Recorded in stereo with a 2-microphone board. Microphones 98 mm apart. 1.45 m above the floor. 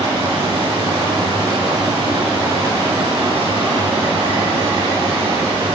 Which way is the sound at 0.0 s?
75° right (ahead or behind).